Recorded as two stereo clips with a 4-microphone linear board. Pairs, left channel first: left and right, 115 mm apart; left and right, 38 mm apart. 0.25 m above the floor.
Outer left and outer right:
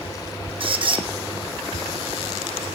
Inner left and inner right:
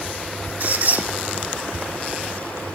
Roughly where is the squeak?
Right.